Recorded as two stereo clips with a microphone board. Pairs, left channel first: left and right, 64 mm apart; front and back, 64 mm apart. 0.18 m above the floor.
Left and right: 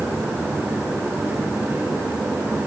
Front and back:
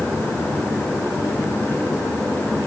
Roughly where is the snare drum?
No snare drum in this recording.